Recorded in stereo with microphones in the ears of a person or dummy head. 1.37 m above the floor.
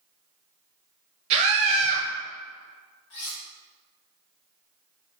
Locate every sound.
1.3 s a scream: 35° right (ahead or behind), 0.9 m
3.1 s cutlery clinking: 65° left (ahead or behind), 1.2 m